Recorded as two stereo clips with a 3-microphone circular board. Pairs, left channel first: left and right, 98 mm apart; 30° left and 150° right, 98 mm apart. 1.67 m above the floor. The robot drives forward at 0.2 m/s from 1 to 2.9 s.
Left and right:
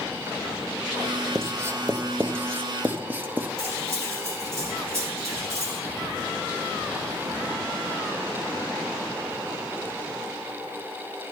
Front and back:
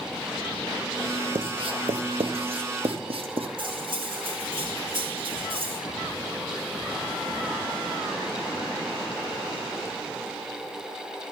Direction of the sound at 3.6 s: 145° right.